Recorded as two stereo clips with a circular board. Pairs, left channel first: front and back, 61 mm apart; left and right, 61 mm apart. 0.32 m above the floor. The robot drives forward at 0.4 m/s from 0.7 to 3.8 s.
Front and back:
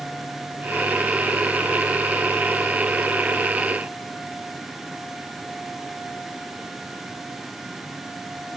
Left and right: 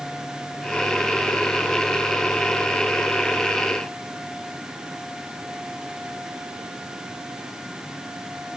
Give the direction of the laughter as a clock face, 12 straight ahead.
I don't hear laughter.